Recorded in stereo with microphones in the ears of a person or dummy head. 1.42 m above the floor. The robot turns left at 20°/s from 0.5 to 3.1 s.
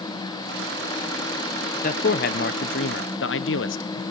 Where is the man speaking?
40° left (ahead or behind), 0.8 m; by 4.0 s 60° left (ahead or behind), 0.8 m.